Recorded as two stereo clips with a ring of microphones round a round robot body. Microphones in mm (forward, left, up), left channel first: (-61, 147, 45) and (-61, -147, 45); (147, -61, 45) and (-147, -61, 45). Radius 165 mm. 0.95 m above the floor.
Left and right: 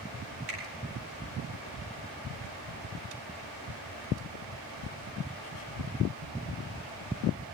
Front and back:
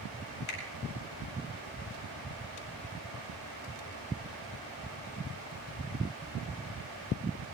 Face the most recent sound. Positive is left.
turn(degrees=-30)